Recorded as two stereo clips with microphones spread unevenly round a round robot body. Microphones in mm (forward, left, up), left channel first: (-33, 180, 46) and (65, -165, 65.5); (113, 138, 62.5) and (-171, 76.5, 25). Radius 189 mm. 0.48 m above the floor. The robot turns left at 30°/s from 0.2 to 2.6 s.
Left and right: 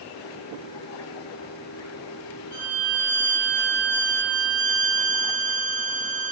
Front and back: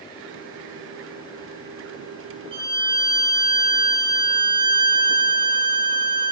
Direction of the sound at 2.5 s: 125° left.